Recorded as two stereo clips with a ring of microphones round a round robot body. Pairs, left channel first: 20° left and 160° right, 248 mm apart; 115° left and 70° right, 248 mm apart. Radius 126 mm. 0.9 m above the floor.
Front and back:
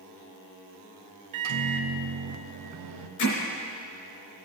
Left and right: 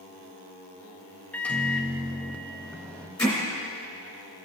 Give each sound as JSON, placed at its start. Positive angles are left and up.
{"t": 1.3, "sound": "a microwave", "azimuth_deg": -165, "distance_m": 0.7}
{"t": 3.2, "sound": "hammering", "azimuth_deg": 35, "distance_m": 3.0}